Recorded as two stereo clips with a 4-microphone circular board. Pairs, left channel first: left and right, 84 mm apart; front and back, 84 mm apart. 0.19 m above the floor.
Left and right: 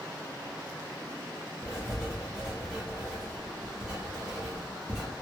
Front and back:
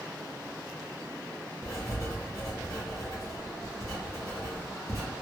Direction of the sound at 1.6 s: 15° right.